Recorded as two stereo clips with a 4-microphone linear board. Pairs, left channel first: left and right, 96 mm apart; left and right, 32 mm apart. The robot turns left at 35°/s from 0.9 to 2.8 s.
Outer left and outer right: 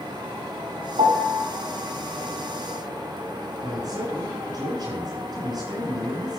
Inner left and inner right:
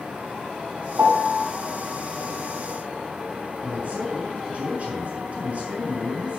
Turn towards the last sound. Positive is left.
turn(degrees=-40)  # may be behind; listen again after turning